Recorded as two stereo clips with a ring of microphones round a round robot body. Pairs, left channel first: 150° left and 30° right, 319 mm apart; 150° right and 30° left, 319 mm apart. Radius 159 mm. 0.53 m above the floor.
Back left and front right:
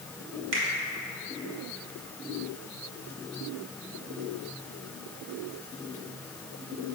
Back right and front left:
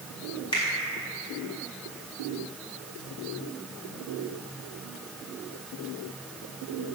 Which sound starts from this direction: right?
A finger snap, at 0.5 s.